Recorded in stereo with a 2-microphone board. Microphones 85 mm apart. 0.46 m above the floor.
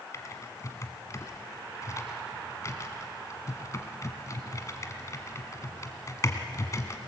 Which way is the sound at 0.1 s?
40° left (ahead or behind).